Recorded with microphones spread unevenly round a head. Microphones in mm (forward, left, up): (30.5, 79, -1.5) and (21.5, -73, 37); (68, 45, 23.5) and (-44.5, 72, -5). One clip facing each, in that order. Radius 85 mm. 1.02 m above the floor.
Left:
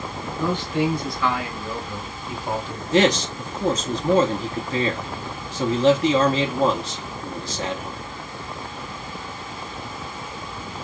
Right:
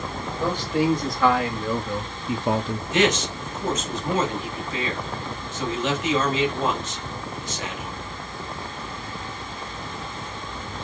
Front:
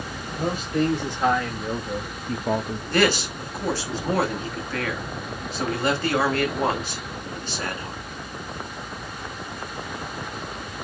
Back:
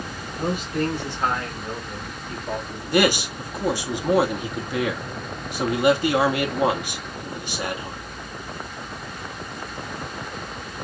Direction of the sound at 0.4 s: 40° right.